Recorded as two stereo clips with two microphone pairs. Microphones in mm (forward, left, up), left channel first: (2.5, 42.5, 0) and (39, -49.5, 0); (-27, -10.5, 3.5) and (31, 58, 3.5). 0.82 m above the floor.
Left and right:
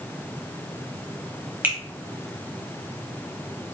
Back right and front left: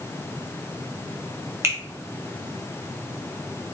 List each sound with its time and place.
1.6 s a finger snap: straight ahead, 1.0 m